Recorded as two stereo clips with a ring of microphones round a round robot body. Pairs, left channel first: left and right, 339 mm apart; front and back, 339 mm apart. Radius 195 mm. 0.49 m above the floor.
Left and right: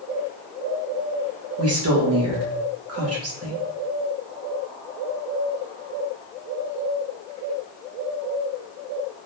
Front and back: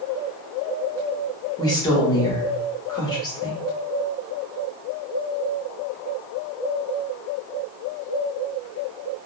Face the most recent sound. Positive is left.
turn(degrees=-75)